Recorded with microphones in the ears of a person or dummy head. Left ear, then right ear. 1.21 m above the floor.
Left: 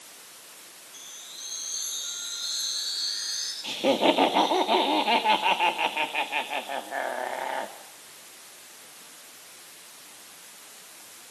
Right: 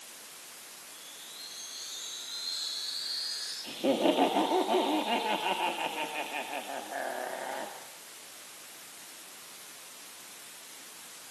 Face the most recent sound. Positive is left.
turn(degrees=40)  # may be behind; listen again after turning